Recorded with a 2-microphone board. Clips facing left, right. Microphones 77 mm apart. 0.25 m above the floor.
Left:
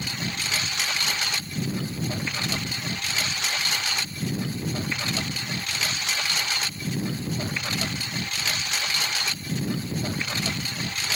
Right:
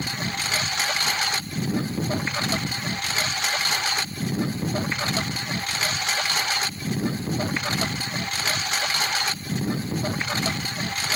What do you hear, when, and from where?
0.0 s a lawn mower: 35° right (ahead or behind)